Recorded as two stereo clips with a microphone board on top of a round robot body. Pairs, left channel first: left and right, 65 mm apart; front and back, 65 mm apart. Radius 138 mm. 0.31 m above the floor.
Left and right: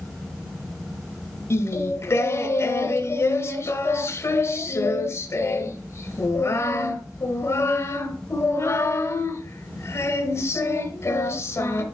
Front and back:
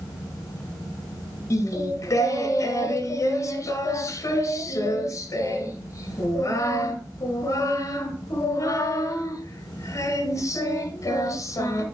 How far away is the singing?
About 1.7 m.